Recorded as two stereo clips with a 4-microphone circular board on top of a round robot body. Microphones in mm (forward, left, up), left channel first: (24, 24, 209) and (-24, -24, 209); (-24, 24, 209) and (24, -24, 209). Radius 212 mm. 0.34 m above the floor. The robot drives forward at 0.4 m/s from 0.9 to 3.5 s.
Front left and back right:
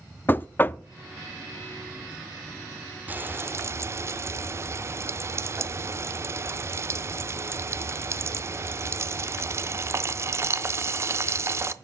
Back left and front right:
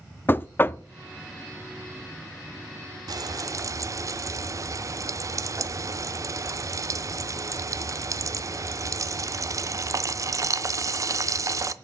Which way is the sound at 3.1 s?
70° right.